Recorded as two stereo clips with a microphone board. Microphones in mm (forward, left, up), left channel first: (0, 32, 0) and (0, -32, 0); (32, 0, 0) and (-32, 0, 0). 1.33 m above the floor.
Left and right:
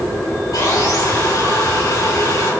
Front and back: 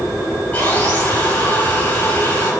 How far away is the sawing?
About 5 m.